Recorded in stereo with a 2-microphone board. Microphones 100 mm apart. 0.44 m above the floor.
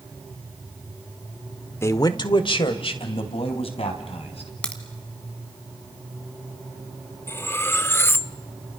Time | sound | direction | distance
1.8 | a man speaking | 25° left (ahead or behind) | 1.0 m
4.6 | a crack | 10° left (ahead or behind) | 2.5 m
7.3 | cutlery clinking | 25° left (ahead or behind) | 0.5 m